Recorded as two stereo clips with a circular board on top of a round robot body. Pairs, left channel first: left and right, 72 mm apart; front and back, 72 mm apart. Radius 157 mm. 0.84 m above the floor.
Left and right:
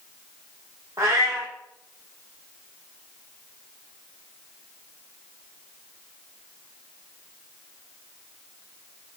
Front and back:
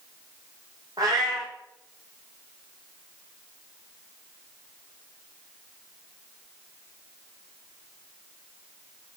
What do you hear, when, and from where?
1.0 s a cat meowing: 140° right, 0.6 m